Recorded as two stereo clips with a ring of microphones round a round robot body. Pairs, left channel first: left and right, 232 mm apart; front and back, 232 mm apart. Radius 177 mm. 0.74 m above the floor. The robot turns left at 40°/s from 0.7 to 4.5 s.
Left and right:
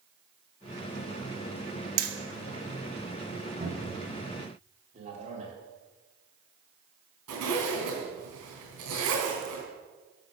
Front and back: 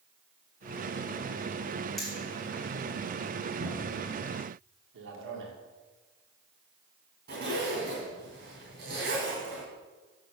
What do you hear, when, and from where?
2.0 s hammering: 90° right, 1.3 m; by 2.1 s 95° right, 1.3 m
3.6 s a cupboard door: 150° right, 3.5 m; by 4.1 s 170° right, 3.5 m
4.9 s a man speaking: 155° right, 2 m
7.3 s a zipper: 120° right, 3 m